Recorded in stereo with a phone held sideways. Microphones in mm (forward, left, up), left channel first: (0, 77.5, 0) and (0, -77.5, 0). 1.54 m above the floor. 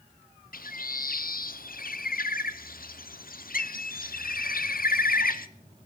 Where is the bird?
70° left (ahead or behind), 0.6 m.